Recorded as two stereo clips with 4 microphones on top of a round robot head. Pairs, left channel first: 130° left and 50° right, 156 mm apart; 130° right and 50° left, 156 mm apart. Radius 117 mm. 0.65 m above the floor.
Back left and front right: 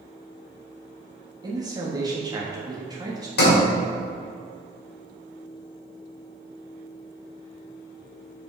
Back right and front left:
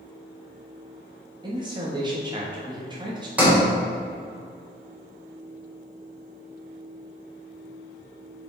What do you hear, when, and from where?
1.4 s a man speaking: 5° left, 1.3 m
3.4 s a sliding door: 130° left, 2.5 m